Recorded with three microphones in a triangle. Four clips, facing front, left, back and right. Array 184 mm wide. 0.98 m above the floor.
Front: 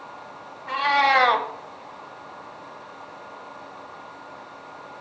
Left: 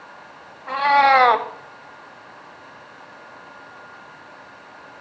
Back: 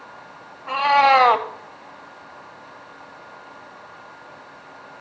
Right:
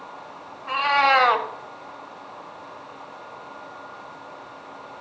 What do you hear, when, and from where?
0.7 s a cat meowing: 135° left, 1.0 m